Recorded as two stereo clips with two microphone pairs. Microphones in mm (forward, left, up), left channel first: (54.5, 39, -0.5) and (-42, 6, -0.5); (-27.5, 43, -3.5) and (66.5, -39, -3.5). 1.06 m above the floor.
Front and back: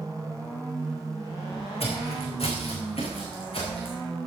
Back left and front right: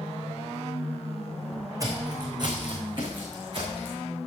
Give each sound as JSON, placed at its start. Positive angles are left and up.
{"t": 1.8, "sound": "footsteps", "azimuth_deg": 20, "distance_m": 4.0}